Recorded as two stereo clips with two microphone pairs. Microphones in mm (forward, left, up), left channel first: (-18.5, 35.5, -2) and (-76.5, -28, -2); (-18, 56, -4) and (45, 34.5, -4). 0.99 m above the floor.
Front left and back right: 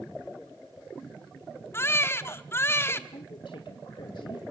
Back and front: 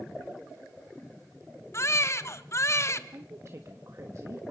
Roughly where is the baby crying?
Behind left.